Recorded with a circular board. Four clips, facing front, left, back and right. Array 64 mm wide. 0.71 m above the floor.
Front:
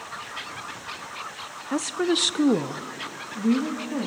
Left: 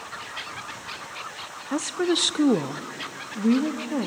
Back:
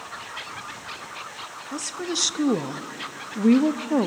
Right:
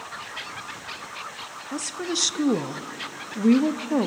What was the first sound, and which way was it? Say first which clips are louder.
A woman speaking: left 6 dB, front 7 dB; 40° left.